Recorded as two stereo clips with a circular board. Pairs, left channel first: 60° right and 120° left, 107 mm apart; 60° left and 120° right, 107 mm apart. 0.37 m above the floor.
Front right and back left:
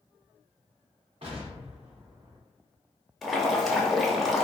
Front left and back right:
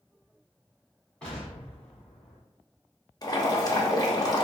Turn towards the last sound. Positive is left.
turn(degrees=30)